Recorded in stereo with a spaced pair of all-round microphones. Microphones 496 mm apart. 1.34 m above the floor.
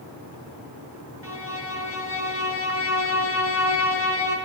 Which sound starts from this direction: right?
A violin, at 1.2 s.